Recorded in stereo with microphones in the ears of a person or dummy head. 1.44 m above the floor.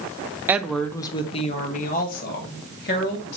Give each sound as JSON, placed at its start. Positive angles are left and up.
{"t": 0.5, "sound": "a woman speaking", "side_deg": -15, "distance_m": 0.7}